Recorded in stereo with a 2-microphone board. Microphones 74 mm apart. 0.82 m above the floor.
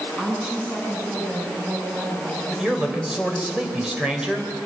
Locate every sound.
0.2 s a woman speaking: 20° right (ahead or behind), 9 m
2.5 s a man speaking: 10° right (ahead or behind), 4 m